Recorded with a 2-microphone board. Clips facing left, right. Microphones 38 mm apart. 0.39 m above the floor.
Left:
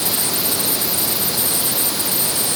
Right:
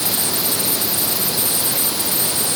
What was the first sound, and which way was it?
Only background noise.